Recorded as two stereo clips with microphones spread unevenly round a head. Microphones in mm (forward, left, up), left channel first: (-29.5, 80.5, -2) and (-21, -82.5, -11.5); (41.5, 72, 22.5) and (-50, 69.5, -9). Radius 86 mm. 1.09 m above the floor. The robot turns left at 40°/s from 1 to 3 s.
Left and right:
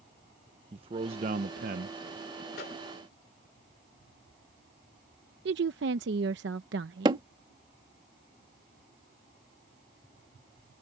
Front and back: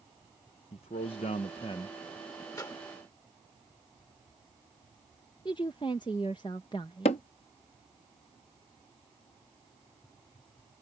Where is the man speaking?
35° right; by 2.0 s 75° right.